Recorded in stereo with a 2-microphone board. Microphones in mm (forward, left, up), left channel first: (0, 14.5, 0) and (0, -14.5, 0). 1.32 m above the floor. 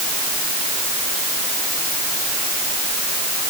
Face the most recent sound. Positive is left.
No sound to turn to.